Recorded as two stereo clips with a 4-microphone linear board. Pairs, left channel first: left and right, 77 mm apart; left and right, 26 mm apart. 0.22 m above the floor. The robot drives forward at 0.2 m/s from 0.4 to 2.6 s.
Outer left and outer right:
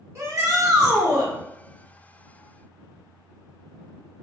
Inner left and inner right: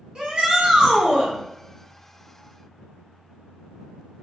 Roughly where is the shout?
Right.